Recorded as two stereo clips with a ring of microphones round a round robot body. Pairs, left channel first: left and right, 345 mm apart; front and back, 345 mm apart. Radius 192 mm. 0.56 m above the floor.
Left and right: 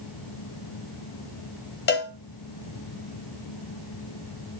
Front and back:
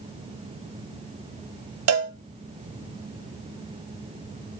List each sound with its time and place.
1.9 s a cowbell: 145° left, 1.3 m